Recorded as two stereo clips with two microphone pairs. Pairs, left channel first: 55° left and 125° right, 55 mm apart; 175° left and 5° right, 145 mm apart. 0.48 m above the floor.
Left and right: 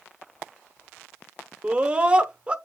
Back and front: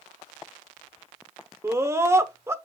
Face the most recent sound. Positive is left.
turn(degrees=-65)